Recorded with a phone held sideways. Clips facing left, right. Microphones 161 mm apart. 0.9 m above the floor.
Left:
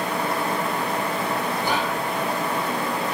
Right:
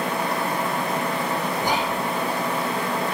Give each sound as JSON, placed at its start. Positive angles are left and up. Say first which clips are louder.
{"t": 1.6, "sound": "whispering", "louder": "even", "side_deg": -15, "distance_m": 3.5}